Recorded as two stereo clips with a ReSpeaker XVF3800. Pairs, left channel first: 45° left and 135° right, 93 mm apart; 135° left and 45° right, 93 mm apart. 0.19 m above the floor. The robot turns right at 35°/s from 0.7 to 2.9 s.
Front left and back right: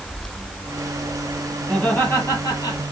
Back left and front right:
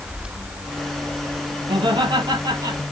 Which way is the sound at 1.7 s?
40° right.